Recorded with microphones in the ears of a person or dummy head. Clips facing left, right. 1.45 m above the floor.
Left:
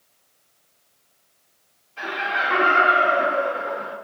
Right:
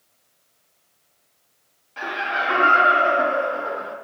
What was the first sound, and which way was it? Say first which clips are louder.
Laughter: right 1 dB; 80° right.